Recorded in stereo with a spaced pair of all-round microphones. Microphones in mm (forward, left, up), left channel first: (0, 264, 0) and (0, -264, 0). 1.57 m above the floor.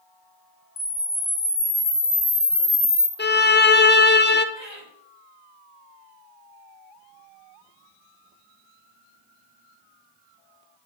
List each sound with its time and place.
0.8 s a camera shutter: 65° left (ahead or behind), 1.8 m
3.2 s a violin: 20° left (ahead or behind), 0.6 m
4.5 s laughter: 55° left (ahead or behind), 6 m